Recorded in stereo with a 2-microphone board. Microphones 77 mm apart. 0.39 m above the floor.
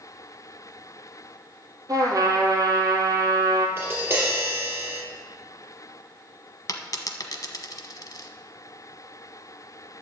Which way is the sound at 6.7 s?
50° left (ahead or behind).